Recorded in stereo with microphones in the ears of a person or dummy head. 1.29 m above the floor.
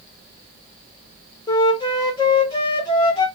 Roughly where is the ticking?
No ticking in this recording.